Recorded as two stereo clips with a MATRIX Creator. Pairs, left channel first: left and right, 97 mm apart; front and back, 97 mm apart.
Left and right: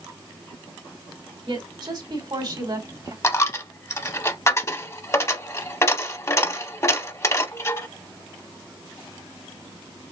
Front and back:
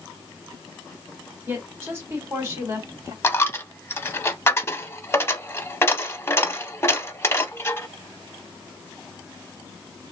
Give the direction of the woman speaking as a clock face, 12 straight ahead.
4 o'clock.